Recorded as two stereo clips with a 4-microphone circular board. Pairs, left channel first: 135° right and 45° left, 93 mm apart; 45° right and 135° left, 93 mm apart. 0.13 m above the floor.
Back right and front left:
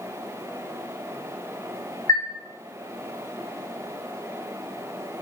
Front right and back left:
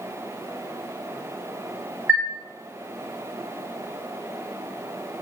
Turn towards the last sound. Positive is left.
turn(degrees=-155)